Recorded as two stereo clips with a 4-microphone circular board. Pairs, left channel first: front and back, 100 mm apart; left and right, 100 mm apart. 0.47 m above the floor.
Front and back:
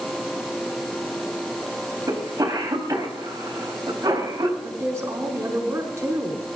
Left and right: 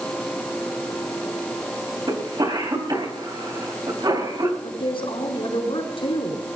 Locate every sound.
2.1 s a cough: 130° right, 3.5 m
4.6 s a woman speaking: 115° left, 4.5 m